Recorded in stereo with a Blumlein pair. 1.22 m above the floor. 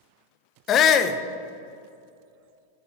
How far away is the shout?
About 0.5 m.